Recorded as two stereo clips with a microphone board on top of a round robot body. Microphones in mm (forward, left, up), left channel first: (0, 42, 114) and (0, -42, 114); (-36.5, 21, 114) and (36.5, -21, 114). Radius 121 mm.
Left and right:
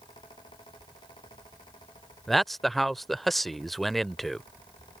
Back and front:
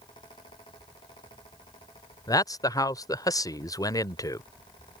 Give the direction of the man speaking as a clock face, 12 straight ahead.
6 o'clock.